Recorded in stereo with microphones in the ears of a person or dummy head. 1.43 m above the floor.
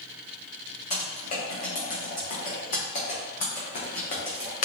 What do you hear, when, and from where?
0.9 s typing on a keyboard: 45° left (ahead or behind), 0.8 m